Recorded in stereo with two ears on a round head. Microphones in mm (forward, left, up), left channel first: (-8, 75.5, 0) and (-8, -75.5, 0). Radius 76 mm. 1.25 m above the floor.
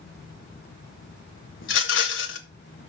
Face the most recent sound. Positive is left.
turn(degrees=85)